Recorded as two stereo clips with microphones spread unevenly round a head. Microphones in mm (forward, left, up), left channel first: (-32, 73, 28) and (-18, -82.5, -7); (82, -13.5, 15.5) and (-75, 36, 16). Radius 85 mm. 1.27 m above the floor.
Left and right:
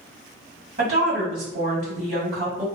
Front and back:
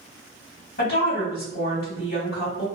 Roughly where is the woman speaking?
Ahead right.